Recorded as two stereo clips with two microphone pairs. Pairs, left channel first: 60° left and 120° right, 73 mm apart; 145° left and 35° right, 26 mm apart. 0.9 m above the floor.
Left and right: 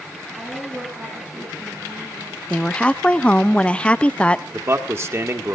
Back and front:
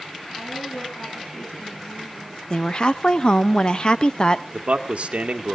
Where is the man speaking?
70° right, 1.4 m.